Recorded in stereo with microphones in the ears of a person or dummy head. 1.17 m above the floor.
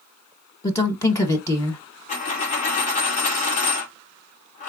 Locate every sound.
0.6 s a woman speaking: 15° left (ahead or behind), 0.8 m
2.1 s a dropped coin: 35° left (ahead or behind), 1.3 m